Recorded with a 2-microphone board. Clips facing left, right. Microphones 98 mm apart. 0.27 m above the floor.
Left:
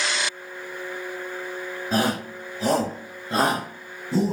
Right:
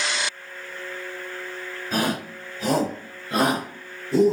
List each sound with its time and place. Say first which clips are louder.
1.9 s a shout: left 2 dB; 30° left (ahead or behind), 1.7 m; by 4.3 s 35° left (ahead or behind), 2 m